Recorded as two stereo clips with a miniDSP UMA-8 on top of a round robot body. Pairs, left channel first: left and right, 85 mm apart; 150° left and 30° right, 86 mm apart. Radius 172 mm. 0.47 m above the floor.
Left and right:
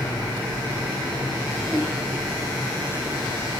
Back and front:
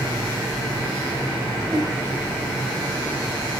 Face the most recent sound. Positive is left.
turn(degrees=10)